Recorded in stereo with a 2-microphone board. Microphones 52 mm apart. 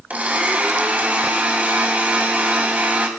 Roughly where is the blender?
Right.